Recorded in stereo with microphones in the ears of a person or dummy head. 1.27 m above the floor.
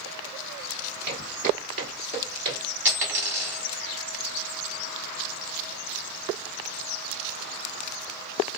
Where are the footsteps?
55° right (ahead or behind), 2.0 m; by 2.6 s 25° right (ahead or behind), 1.3 m.